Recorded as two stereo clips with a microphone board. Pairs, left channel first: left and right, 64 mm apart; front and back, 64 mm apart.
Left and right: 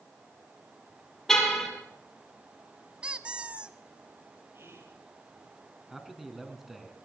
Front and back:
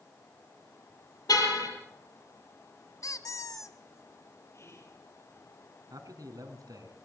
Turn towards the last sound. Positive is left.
turn(degrees=-175)